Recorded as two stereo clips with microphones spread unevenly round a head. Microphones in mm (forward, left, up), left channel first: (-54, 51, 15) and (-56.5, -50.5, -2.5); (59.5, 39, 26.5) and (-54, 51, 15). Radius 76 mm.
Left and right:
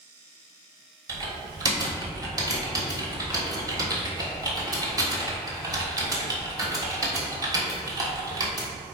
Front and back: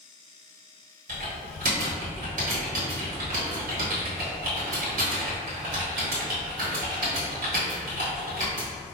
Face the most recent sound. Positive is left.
turn(degrees=-145)